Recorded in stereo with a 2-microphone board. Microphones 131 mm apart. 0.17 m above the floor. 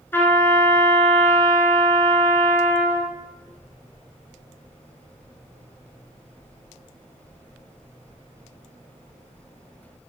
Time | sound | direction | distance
0.1 | a trumpet | 15° left (ahead or behind) | 1.6 m